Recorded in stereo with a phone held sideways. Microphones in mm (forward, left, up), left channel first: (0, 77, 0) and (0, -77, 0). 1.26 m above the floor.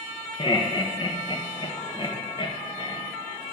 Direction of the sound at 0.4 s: 35° left (ahead or behind).